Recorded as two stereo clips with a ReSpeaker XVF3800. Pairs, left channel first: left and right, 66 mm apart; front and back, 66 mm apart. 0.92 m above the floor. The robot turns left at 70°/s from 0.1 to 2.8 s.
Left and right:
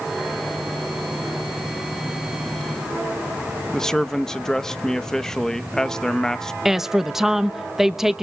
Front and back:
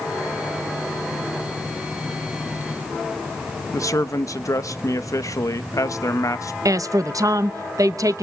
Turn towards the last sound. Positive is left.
turn(degrees=-175)